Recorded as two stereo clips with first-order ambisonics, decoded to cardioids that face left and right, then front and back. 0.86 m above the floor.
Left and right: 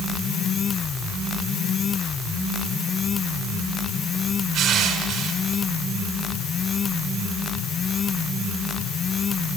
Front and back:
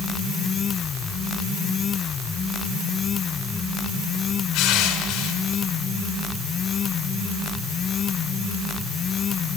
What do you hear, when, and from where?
4.5 s crushing: 30° right, 4.5 m